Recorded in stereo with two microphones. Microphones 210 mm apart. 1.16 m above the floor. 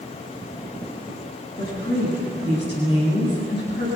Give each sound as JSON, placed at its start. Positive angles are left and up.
{"t": 1.6, "sound": "a woman speaking", "side_deg": 50, "distance_m": 10.0}